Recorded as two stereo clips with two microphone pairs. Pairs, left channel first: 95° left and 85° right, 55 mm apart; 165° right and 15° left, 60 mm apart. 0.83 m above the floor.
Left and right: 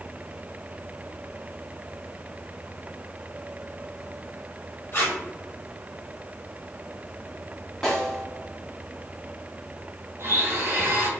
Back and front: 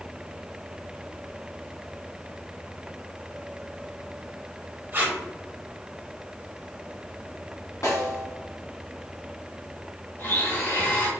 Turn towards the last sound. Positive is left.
turn(degrees=-120)